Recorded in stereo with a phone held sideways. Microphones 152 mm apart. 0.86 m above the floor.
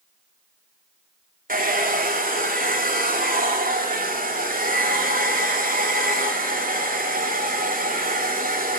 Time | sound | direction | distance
1.5 | a hair dryer | 70° right (ahead or behind) | 2.5 m